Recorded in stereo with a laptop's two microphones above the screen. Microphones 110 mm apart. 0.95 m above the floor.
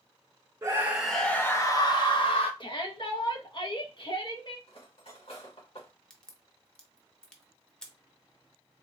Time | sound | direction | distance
0.6 | a scream | 25° right (ahead or behind) | 0.6 m
2.6 | a shout | 45° left (ahead or behind) | 1.1 m
4.7 | cutlery clinking | 60° left (ahead or behind) | 1.7 m
6.1 | a crack | 5° left (ahead or behind) | 0.6 m